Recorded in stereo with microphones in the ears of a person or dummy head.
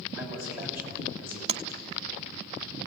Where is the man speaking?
15° right (ahead or behind), 8 m.